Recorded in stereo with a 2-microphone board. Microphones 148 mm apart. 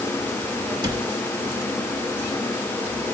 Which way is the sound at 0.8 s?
30° right (ahead or behind).